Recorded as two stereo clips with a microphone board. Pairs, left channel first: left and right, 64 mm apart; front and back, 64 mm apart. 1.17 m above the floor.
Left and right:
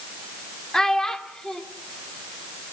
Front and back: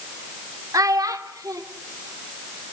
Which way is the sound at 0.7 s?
170° left.